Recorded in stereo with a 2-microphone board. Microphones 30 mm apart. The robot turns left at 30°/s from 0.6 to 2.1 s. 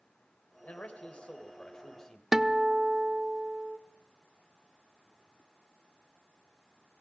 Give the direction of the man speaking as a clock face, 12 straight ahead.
10 o'clock.